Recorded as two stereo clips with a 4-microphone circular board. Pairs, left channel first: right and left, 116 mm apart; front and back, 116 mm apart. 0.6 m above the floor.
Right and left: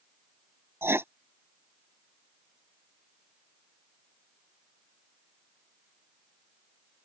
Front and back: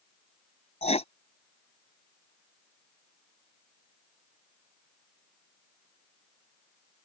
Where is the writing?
20° left.